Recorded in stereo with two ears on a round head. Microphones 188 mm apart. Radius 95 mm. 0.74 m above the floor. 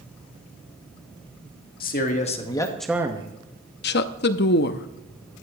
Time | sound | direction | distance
1.8 | a man speaking | 45° left (ahead or behind) | 1.8 m
3.8 | a woman speaking | 55° left (ahead or behind) | 0.8 m